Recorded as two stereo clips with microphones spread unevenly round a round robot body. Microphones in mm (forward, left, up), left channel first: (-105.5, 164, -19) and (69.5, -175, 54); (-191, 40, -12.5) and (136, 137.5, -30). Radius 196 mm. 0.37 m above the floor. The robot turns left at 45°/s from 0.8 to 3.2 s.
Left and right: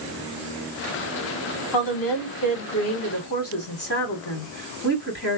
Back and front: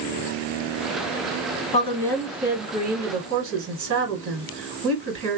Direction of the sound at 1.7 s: 130° left.